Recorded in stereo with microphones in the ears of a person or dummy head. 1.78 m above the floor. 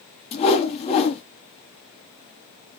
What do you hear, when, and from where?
0.3 s a whoosh: 30° left (ahead or behind), 1.0 m